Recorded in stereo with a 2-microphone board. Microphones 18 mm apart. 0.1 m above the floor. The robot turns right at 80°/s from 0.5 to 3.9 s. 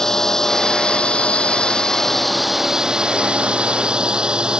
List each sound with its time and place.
0.0 s a drone: 30° left; by 4.6 s 60° right